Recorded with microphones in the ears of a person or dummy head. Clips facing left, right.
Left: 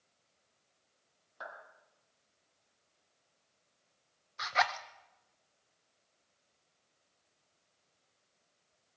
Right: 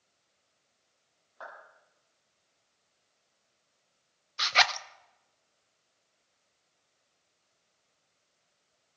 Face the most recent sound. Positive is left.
turn(degrees=-40)  # may be behind; listen again after turning